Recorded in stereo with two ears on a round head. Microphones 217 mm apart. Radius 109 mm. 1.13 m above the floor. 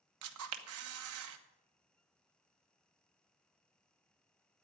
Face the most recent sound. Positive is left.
turn(degrees=-65)  # may be behind; listen again after turning